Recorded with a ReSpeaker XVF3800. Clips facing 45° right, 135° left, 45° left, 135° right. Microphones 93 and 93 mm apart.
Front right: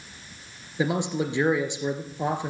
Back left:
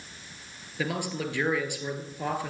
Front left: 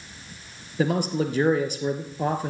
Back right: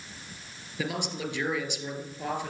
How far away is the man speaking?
About 1.6 m.